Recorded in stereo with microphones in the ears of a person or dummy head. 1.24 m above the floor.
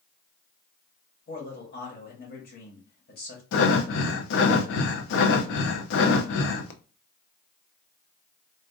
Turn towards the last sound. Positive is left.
turn(degrees=65)  # may be behind; listen again after turning